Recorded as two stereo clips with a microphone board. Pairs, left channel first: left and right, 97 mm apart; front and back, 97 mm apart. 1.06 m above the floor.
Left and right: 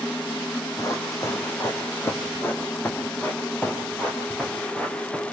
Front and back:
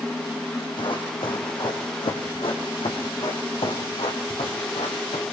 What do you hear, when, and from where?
0.8 s running footsteps: 35° left, 3.5 m; by 5.2 s 5° left, 5.5 m